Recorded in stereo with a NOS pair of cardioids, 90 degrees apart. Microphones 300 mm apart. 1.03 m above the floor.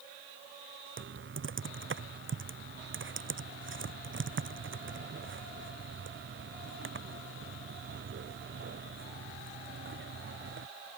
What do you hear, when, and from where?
1.0 s typing on a keyboard: 40° right